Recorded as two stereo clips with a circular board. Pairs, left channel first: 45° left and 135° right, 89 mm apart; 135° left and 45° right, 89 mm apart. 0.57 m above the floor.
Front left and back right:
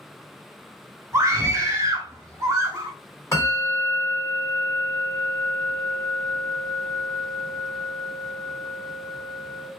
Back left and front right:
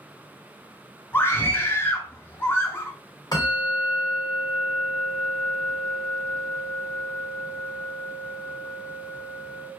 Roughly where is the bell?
Left.